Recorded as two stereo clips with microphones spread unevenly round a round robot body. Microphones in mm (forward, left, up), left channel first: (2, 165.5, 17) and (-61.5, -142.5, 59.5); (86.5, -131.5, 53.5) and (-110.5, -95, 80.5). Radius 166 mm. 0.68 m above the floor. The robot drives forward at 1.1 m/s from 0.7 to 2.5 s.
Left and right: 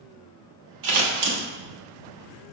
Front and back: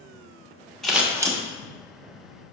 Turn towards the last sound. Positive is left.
turn(degrees=-145)